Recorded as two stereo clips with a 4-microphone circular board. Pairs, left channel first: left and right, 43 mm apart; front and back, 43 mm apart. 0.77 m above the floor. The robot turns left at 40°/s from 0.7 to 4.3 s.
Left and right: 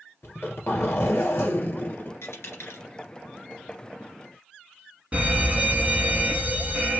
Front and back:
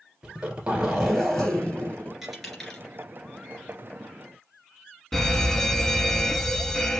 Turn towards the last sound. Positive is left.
turn(degrees=-75)